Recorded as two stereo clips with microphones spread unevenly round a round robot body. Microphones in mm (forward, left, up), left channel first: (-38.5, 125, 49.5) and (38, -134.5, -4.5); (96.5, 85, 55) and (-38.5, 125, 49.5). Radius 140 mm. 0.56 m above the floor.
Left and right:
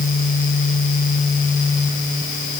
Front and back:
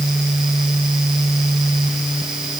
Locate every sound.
Only background noise.